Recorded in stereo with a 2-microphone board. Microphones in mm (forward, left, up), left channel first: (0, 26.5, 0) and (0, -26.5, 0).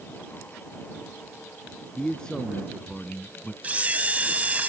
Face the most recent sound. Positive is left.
turn(degrees=-30)  # may be behind; listen again after turning